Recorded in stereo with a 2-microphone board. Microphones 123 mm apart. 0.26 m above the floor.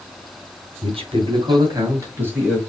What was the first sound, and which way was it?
A man speaking, 50° right (ahead or behind).